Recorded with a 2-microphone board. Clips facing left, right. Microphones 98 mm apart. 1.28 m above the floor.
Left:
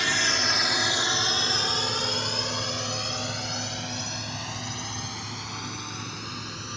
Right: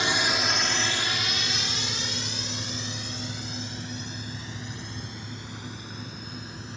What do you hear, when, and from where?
0.0 s a drone: 20° right (ahead or behind); by 6.8 s 85° left